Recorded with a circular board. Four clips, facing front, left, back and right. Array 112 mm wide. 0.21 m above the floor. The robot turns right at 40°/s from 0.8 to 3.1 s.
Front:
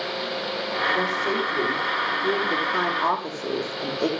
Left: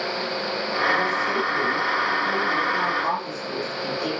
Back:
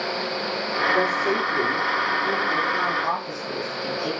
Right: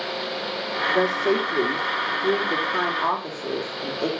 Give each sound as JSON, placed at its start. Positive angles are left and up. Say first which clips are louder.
{"t": 0.9, "sound": "a woman speaking", "louder": "right 7 dB, back 4 dB", "azimuth_deg": -120, "distance_m": 7.5}